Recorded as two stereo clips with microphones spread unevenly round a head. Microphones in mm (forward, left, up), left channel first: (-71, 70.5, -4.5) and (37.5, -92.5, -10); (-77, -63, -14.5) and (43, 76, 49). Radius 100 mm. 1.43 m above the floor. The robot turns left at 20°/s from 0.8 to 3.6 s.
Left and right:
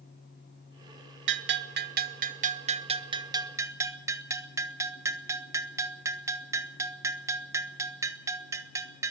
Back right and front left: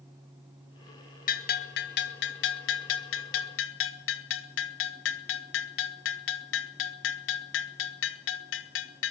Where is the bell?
85° right, 1.7 m; by 9.1 s 130° right, 1.7 m.